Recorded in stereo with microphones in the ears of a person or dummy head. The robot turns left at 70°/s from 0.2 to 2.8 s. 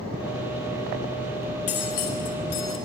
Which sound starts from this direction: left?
Cutlery clinking, at 1.7 s.